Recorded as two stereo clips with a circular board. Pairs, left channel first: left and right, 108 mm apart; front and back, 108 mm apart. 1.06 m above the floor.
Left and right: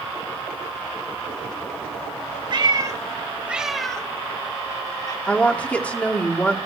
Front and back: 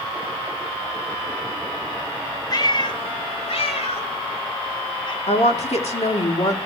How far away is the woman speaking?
About 2 m.